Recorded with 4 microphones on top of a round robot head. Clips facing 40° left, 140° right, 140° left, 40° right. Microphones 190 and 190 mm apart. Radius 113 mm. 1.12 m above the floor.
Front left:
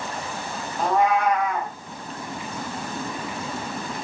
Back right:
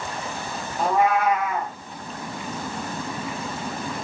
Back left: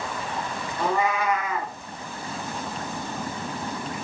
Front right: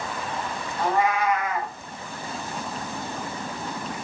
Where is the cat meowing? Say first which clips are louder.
Even, front right 1 dB; 130° left, 0.8 m.